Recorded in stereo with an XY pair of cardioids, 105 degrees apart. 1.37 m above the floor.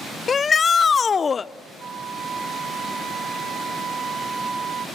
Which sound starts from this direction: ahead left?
A shout, at 0.3 s.